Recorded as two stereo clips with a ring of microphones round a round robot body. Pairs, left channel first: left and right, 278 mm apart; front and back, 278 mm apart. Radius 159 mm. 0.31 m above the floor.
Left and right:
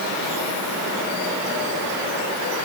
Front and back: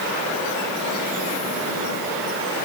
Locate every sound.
Only background noise.